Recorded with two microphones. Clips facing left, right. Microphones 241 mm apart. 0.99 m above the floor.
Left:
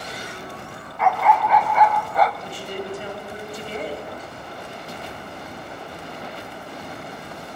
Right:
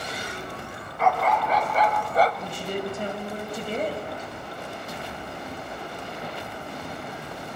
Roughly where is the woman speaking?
Right.